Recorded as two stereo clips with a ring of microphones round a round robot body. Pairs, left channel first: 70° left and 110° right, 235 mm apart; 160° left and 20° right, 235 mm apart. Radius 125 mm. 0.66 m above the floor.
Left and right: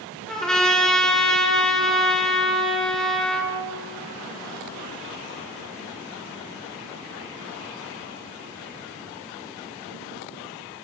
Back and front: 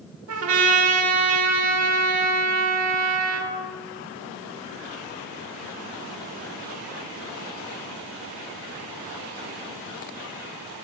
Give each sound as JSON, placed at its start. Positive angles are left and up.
{"t": 0.3, "sound": "a trumpet", "azimuth_deg": -20, "distance_m": 2.5}